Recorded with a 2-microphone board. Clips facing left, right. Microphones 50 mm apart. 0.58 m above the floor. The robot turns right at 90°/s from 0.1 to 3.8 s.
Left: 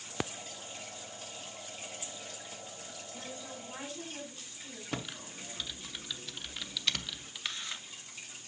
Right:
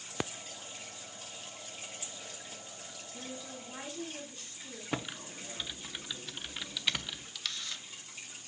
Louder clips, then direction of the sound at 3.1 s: Right 1 dB; 105° left.